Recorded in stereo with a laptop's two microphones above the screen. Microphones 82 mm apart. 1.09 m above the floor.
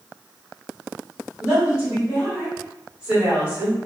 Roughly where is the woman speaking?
Centre.